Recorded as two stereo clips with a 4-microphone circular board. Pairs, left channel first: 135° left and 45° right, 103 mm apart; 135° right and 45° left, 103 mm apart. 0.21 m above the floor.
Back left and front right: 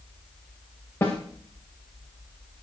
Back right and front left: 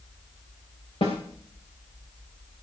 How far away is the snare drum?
About 7 m.